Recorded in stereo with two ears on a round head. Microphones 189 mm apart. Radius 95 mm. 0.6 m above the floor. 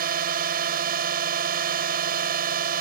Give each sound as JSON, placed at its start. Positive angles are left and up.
{"t": 0.0, "sound": "a drone", "side_deg": -45}